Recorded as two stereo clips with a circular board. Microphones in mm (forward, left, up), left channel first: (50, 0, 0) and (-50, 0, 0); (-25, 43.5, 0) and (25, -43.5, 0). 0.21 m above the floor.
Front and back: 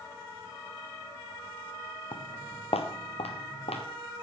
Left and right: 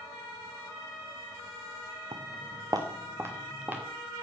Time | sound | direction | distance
2.1 | footsteps | 40° right | 1.0 m